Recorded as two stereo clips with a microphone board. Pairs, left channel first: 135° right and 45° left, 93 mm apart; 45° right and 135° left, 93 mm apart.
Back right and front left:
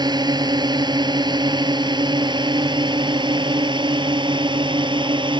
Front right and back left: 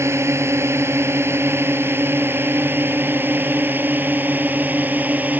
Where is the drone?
80° left; by 5.4 s 65° left.